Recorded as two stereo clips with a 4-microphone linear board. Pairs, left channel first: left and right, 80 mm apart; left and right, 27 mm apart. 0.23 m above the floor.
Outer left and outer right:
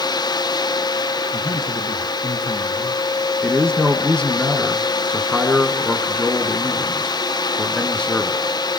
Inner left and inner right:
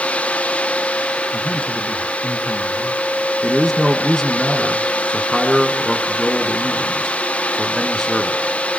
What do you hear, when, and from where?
1.3 s a man speaking: 60° left (ahead or behind), 2.5 m
3.4 s a man speaking: 10° left (ahead or behind), 3.5 m